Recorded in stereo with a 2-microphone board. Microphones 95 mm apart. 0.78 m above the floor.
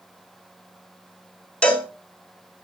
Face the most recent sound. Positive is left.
turn(degrees=10)  # may be behind; listen again after turning